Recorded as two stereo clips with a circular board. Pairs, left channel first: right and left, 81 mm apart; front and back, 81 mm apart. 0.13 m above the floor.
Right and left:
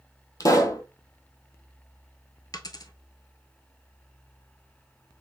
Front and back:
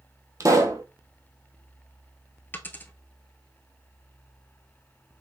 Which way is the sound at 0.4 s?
135° right.